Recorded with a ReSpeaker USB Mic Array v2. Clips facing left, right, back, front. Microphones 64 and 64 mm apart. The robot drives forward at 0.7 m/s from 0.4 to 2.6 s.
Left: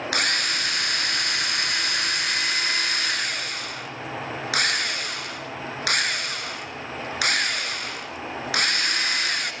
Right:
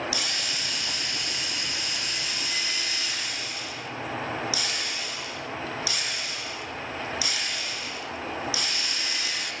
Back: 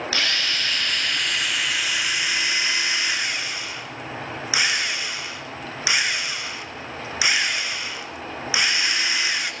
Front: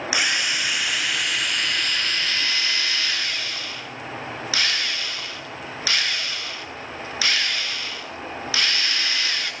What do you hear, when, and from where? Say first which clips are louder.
0.1 s a drill: left 7 dB, front 2 dB; 75° left, 3 m; by 9.5 s 110° left, 3 m